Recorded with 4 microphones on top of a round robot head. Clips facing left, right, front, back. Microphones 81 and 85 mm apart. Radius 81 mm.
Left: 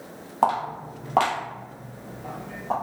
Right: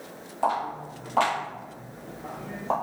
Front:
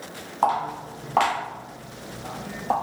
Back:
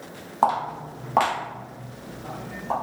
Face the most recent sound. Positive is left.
turn(degrees=-50)